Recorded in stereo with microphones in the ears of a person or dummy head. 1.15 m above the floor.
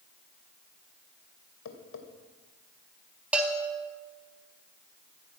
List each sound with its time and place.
1.6 s tapping: 75° left (ahead or behind), 2.5 m
3.3 s a bell: 10° right (ahead or behind), 1.7 m